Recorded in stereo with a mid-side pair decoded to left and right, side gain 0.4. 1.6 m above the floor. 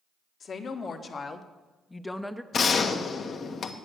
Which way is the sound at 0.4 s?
55° left.